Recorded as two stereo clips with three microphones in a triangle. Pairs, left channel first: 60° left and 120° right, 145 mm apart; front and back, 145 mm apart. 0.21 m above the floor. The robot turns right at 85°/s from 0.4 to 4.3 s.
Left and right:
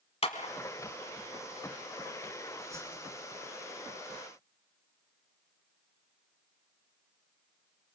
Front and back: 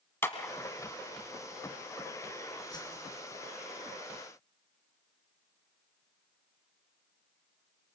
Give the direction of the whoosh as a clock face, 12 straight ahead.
2 o'clock.